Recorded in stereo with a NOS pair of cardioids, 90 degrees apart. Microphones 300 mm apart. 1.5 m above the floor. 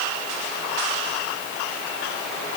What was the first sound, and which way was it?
Only background noise.